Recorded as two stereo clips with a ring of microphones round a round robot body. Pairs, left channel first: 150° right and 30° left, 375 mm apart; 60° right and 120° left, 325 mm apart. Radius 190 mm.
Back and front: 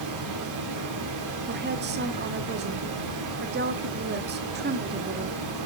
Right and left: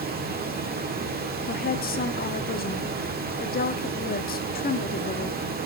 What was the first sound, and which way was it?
Running water, 60° left.